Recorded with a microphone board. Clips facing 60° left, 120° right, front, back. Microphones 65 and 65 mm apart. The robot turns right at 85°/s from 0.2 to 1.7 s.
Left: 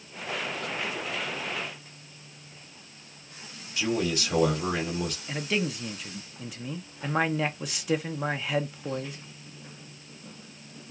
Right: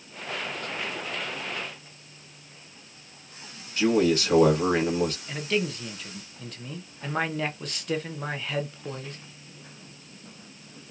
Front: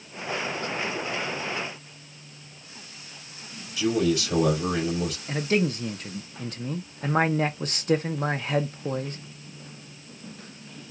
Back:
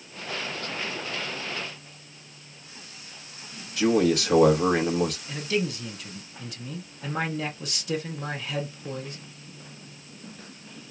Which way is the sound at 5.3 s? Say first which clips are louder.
Right 1 dB, front 3 dB; 20° right.